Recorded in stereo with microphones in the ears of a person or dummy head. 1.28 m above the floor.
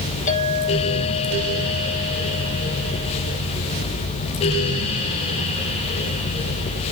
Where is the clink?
40° left (ahead or behind), 7 m.